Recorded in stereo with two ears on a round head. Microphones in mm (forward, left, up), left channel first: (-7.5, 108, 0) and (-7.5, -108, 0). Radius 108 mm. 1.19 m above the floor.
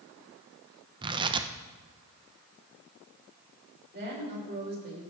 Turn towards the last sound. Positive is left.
turn(degrees=-45)  # may be behind; listen again after turning